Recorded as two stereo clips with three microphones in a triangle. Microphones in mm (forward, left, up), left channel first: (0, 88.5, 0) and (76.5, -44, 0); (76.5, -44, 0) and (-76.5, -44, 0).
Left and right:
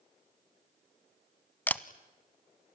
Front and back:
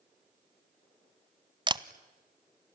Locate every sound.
1.7 s a camera shutter: 170° right, 0.6 m